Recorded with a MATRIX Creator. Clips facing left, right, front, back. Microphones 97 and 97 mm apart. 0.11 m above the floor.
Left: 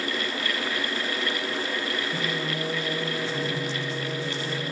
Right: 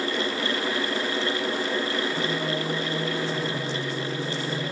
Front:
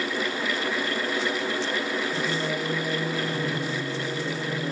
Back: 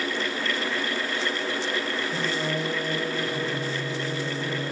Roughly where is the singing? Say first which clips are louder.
Right 3 dB, even; behind.